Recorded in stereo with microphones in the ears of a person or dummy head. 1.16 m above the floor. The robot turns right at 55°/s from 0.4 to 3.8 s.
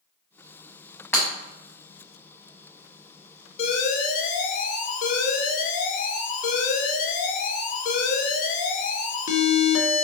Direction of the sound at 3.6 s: 30° left (ahead or behind).